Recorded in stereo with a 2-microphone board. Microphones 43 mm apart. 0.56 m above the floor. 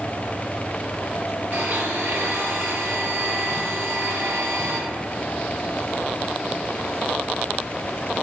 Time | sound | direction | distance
1.5 | a blender | 45° right (ahead or behind) | 3.5 m